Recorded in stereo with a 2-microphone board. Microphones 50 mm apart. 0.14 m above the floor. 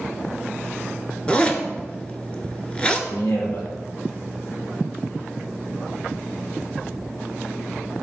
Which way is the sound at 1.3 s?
25° left (ahead or behind).